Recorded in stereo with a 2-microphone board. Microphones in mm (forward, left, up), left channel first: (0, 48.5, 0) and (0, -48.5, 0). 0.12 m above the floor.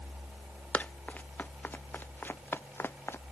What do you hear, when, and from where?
0.7 s running footsteps: 15° left (ahead or behind); by 3.2 s 25° left (ahead or behind)